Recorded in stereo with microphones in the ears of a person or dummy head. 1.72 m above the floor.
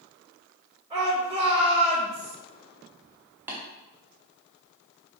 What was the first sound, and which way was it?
A shout, 25° right (ahead or behind).